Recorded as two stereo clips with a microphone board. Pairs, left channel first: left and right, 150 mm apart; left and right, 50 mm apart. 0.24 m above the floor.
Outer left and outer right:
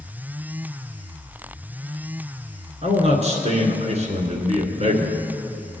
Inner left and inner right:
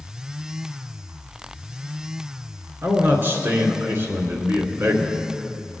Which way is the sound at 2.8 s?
50° right (ahead or behind).